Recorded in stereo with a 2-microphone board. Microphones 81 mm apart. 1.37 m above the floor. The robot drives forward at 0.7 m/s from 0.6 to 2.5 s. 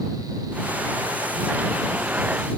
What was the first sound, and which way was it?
Only background noise.